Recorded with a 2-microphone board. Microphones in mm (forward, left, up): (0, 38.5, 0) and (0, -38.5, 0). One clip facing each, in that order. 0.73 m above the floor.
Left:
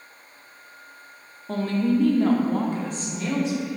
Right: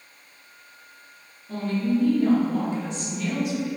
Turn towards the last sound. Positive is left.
turn(degrees=25)  # may be behind; listen again after turning